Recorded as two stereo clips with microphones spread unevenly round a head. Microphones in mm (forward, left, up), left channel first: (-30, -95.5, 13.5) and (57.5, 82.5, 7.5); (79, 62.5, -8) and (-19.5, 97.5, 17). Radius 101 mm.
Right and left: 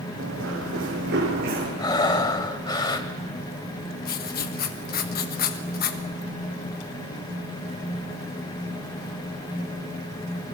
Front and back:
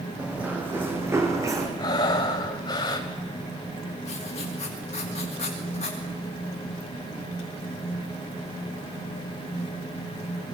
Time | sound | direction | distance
0.2 | running footsteps | 85° left | 5 m
1.8 | breathing | 70° right | 1.6 m
4.0 | writing | 75° right | 1.4 m